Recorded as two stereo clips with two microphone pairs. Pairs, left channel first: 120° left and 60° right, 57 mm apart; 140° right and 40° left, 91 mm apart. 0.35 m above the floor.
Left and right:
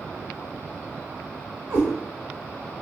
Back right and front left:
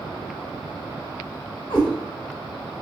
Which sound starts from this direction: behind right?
A cat meowing, at 1.7 s.